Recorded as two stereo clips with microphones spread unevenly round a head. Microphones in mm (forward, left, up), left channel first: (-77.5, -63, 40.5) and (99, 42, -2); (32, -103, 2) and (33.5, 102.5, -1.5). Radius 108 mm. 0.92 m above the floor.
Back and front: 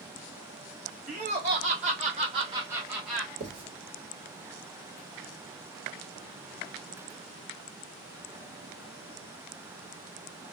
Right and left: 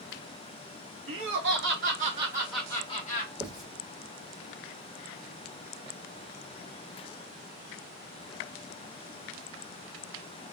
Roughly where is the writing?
Ahead.